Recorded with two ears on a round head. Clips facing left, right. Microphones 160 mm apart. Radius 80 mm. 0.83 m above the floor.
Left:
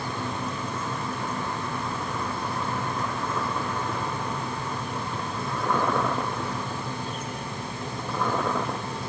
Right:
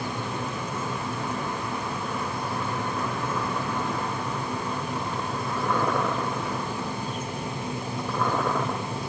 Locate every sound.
Only background noise.